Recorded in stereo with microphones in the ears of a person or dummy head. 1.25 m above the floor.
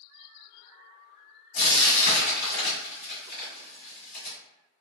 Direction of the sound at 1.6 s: 50° left (ahead or behind).